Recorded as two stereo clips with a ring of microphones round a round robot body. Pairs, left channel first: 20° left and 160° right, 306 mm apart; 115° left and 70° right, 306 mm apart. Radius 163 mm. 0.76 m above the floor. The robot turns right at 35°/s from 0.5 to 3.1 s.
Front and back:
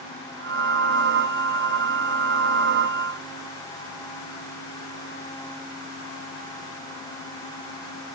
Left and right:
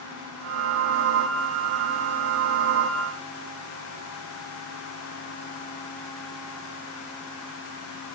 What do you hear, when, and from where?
Only background noise.